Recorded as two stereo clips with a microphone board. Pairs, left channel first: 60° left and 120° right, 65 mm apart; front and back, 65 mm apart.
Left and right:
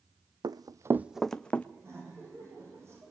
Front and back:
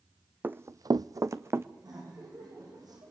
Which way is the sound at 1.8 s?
165° right.